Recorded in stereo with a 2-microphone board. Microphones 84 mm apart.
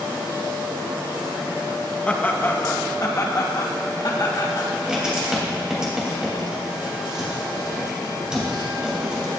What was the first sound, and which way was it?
Laughter, 15° left (ahead or behind).